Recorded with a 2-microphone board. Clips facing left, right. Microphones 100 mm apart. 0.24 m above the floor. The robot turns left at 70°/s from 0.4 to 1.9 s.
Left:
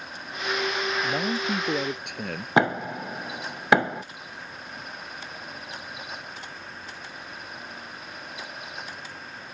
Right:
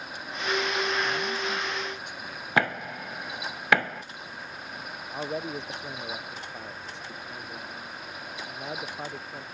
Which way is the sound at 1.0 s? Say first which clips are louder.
Left 3 dB; 145° left.